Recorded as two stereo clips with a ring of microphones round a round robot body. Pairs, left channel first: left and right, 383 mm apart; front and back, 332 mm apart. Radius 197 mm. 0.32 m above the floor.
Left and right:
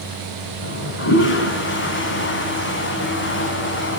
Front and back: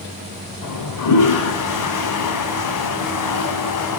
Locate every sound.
0.6 s a toilet flushing: 30° left, 1.4 m